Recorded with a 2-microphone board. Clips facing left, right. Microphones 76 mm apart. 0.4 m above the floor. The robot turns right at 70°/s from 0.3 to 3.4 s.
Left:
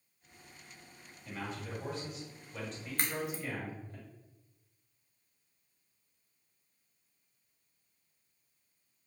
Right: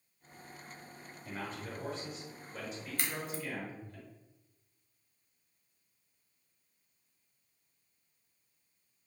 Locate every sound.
1.2 s a man speaking: 115° right, 1.6 m; by 4.0 s 40° left, 1.6 m
3.0 s a crack: 45° left (ahead or behind), 0.8 m; by 3.4 s 15° left (ahead or behind), 0.8 m